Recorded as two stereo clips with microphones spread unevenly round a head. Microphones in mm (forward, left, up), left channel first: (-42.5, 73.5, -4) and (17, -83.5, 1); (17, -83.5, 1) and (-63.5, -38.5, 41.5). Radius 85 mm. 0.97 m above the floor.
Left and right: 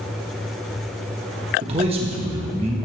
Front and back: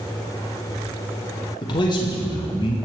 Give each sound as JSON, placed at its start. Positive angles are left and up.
{"t": 1.6, "sound": "a man speaking", "azimuth_deg": -10, "distance_m": 1.2}